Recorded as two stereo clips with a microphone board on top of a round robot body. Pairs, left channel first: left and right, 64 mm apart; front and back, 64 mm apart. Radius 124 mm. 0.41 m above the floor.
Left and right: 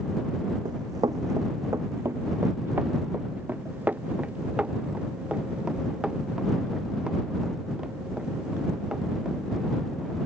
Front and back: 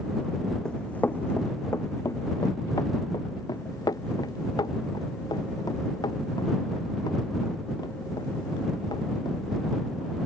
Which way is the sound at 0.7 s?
80° right.